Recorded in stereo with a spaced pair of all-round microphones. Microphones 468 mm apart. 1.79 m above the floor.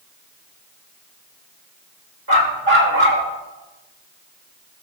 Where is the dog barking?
50° right (ahead or behind), 2.5 m.